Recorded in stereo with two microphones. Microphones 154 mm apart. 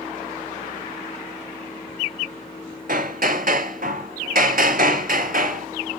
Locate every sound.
2.9 s hammering: 65° right (ahead or behind), 0.8 m